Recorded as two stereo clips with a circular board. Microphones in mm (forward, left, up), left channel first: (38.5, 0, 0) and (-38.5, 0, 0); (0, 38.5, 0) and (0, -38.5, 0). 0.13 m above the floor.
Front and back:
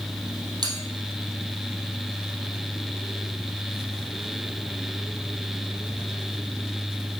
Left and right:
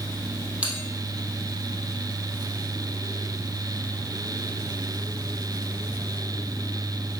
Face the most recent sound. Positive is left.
turn(degrees=-165)